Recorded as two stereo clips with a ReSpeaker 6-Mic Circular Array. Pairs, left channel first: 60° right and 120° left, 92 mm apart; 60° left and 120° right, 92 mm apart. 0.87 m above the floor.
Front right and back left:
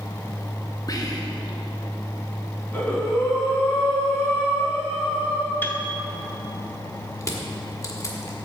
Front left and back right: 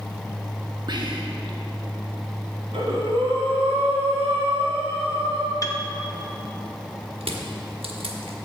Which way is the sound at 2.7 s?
130° right.